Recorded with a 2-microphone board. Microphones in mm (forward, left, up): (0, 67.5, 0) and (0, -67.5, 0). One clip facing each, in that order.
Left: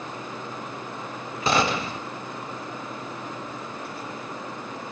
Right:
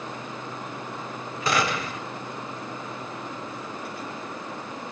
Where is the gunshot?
30° left (ahead or behind), 0.6 m.